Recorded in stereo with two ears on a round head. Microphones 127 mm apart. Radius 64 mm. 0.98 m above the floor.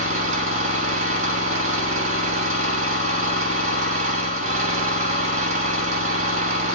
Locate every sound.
0.0 s an engine running: 55° right (ahead or behind), 1.7 m